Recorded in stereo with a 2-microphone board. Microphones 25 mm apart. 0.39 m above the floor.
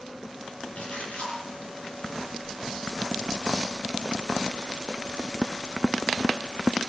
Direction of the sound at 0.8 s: 60° left (ahead or behind).